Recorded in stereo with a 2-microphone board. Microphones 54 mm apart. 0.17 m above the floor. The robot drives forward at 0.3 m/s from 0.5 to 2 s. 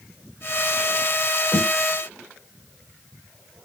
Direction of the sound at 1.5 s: 25° left (ahead or behind).